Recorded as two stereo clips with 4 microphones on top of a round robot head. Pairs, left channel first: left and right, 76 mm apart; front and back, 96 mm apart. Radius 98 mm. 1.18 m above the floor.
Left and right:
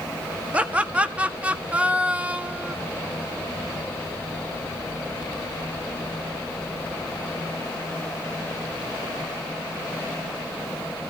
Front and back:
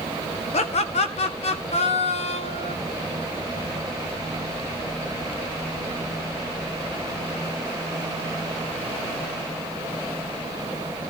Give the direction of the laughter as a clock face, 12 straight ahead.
1 o'clock.